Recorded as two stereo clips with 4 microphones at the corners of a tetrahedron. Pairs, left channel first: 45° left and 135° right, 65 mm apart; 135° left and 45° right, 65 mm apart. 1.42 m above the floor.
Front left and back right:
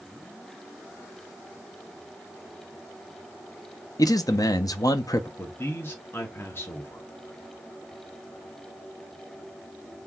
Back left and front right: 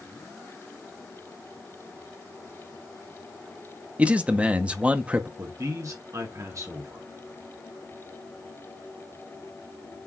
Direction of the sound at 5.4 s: 5° right.